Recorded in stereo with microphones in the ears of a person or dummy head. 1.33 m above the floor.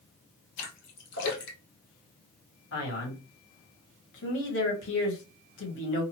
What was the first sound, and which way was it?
A splash, 65° left (ahead or behind).